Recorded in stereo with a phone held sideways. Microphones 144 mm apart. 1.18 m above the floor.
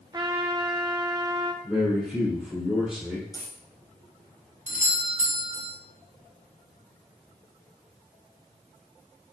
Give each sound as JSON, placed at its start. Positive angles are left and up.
{"t": 0.1, "sound": "a trumpet", "side_deg": -25, "distance_m": 0.8}
{"t": 1.6, "sound": "a man speaking", "side_deg": -5, "distance_m": 3.0}
{"t": 3.3, "sound": "a dropped coin", "side_deg": 25, "distance_m": 1.5}
{"t": 4.7, "sound": "a doorbell", "side_deg": -55, "distance_m": 1.5}